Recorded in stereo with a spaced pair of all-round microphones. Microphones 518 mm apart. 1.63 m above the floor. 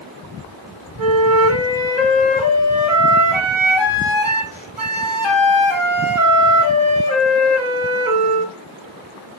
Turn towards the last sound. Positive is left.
turn(degrees=60)  # may be behind; listen again after turning